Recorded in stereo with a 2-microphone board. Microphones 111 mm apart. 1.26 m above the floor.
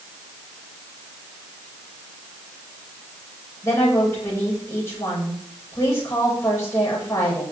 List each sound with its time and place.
3.6 s a woman speaking: 25° left (ahead or behind), 7 m